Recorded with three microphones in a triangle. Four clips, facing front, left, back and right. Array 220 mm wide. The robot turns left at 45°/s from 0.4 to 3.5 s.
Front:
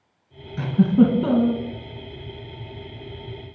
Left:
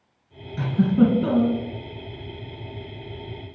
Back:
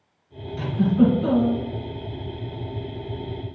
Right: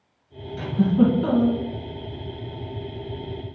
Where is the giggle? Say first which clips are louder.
Even, front 2 dB; 30° left, 1.5 m; by 1.6 s 15° right, 1.5 m.